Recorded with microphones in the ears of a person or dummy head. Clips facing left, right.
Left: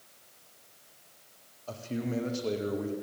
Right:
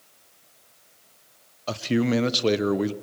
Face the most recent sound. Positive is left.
turn(degrees=-80)